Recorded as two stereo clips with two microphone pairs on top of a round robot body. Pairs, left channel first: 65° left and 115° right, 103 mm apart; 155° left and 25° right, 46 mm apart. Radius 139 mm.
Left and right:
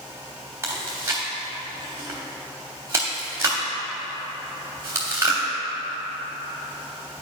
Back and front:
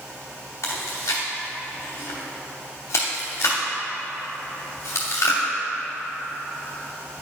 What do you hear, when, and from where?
0.6 s chewing: 170° left, 0.7 m